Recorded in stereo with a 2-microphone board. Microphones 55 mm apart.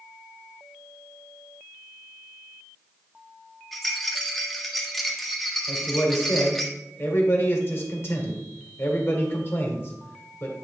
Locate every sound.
3.7 s a rattle: 5° left (ahead or behind), 1.4 m
5.7 s a man speaking: 45° left (ahead or behind), 1.9 m